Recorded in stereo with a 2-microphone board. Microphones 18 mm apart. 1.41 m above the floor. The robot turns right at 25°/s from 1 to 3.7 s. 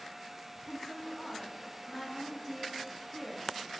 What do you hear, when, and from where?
0.6 s a woman speaking: 165° left, 1.8 m; by 3.5 s 130° right, 1.8 m